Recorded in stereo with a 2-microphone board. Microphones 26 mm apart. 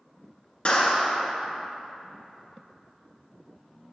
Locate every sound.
0.7 s a clap: 35° left (ahead or behind), 1.5 m